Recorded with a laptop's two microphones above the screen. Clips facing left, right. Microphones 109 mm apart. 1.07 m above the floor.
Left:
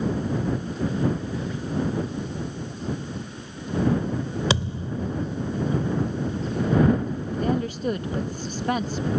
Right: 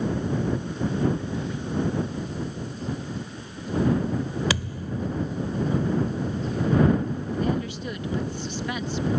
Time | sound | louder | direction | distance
4.5 | a thud | left 3 dB | 25° left (ahead or behind) | ?
7.4 | a woman speaking | left 4 dB | 40° left (ahead or behind) | ?